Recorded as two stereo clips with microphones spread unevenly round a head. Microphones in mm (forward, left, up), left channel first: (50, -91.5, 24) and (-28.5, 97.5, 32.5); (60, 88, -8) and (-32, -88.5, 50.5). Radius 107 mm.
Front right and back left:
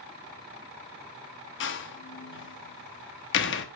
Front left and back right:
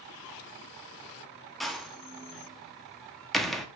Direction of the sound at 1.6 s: 30° right.